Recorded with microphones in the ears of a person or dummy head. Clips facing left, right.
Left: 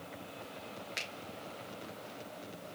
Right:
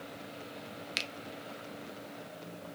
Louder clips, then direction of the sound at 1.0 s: Right 3 dB; 50° right (ahead or behind).